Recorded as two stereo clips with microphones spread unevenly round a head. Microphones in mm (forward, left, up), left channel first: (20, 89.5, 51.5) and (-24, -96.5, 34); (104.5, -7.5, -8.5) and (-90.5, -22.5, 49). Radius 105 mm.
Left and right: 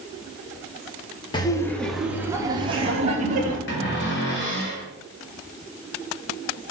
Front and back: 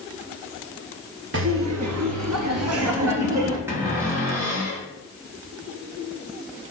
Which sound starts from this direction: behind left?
Laughter, at 1.3 s.